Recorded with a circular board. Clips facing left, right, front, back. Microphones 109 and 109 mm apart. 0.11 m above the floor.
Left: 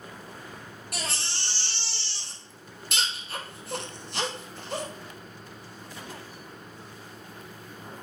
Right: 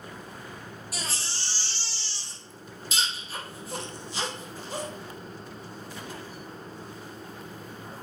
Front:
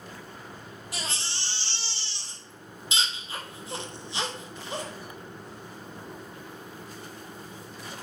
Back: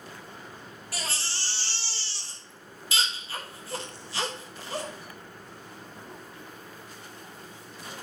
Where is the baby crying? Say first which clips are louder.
Left 3 dB, back 1 dB; 70° left, 2 m.